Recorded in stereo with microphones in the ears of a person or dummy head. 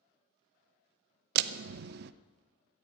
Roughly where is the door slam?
Right.